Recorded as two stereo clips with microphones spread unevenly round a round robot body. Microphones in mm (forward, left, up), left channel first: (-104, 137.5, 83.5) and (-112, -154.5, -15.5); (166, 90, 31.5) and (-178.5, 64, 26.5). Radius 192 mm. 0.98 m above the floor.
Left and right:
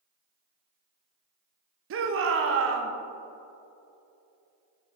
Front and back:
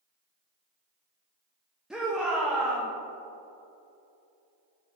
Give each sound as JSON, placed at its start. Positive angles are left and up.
{"t": 1.9, "sound": "a shout", "azimuth_deg": -90, "distance_m": 0.6}